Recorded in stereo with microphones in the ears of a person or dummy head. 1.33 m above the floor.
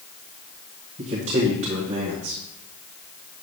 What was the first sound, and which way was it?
A man speaking, 40° right (ahead or behind).